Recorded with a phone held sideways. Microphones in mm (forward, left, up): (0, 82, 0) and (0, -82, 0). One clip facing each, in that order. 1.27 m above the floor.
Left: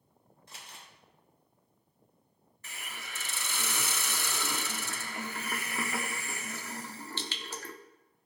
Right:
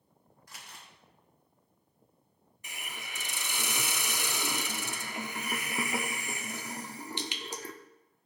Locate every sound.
0.5 s crumpling: 25° left (ahead or behind), 3 m
2.6 s a hiss: 15° right (ahead or behind), 0.8 m